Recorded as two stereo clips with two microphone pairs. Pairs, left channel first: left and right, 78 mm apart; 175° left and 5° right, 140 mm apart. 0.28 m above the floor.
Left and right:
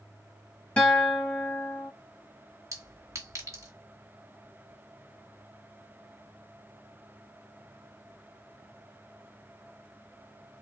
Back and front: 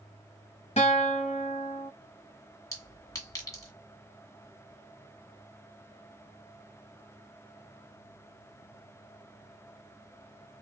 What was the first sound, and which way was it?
A guitar, 160° left.